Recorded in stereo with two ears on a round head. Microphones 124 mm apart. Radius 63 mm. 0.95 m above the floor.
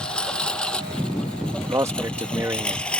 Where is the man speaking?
20° right (ahead or behind).